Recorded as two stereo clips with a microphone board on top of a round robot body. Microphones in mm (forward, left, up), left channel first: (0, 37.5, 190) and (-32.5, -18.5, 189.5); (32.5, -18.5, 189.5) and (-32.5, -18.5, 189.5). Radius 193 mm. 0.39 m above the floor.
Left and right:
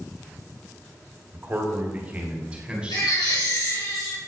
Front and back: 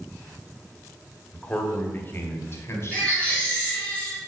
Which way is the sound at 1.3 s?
70° right.